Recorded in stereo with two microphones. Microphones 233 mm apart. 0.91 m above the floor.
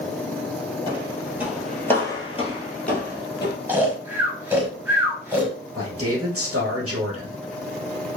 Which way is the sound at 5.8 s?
70° right (ahead or behind).